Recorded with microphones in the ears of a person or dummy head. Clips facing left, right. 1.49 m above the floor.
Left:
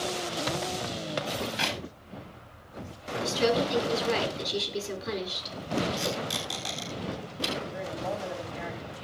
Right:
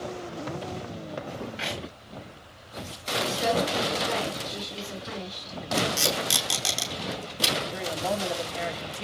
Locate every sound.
1.6 s a clap: 60° left (ahead or behind), 6.5 m
3.2 s a woman speaking: 45° left (ahead or behind), 9.5 m
5.8 s tape being pulled: 70° right (ahead or behind), 3.5 m
7.7 s a woman speaking: 70° right (ahead or behind), 2.5 m